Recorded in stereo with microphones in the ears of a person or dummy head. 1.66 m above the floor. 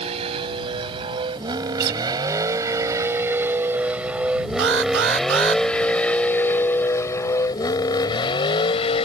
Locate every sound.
0.0 s a vehicle: 30° right (ahead or behind); by 9.1 s 30° left (ahead or behind)
1.8 s a guitar: 60° right (ahead or behind)
4.6 s an alarm: 70° right (ahead or behind)